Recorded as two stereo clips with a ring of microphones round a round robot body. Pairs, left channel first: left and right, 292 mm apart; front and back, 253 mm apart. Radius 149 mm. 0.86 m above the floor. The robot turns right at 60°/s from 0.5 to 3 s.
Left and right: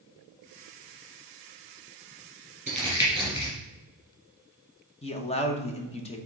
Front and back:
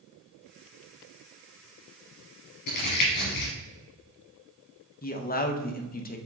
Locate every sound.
2.7 s crumpling: 25° right, 3 m; by 3.5 s 5° right, 3 m
5.0 s a man speaking: 30° left, 0.9 m